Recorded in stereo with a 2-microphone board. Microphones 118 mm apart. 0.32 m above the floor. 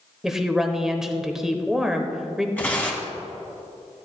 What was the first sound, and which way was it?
A woman speaking, 5° right (ahead or behind).